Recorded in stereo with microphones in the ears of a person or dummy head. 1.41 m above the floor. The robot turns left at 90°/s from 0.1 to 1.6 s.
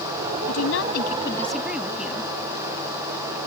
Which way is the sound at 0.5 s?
100° left.